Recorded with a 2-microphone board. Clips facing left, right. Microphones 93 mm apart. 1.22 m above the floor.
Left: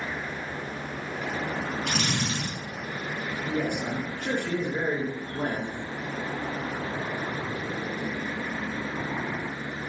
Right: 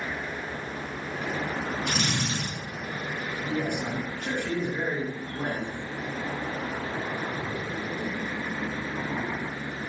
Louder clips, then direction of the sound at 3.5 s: Left 1 dB; 50° left (ahead or behind).